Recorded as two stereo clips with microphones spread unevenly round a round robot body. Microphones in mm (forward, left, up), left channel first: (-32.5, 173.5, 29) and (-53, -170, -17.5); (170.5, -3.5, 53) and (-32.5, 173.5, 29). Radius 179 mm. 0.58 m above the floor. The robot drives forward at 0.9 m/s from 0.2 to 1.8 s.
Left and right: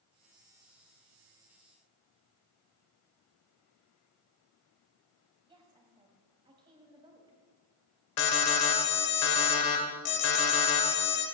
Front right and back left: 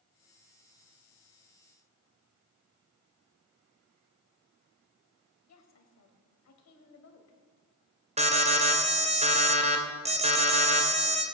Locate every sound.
5.5 s a woman speaking: 15° right, 3 m
8.2 s an alarm: 75° left, 2.5 m